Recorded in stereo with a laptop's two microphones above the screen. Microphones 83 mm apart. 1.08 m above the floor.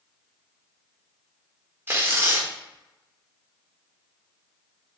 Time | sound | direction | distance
1.9 | tearing paper | 25° right (ahead or behind) | 1.0 m